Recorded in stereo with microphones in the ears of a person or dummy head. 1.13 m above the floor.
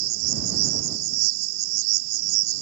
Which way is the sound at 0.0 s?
60° right (ahead or behind).